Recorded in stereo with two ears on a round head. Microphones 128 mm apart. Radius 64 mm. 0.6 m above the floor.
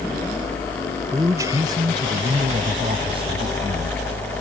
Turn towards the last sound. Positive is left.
turn(degrees=-45)  # may be behind; listen again after turning